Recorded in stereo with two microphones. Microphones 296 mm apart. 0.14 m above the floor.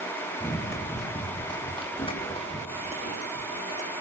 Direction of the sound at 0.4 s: 5° left (ahead or behind).